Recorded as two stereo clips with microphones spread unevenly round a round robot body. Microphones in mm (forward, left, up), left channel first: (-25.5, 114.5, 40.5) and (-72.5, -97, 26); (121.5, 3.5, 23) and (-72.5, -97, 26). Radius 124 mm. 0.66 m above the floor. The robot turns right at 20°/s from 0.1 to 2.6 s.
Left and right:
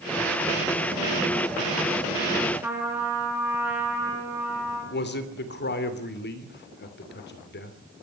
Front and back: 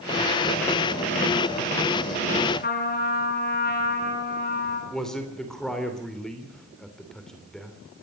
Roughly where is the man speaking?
Behind left.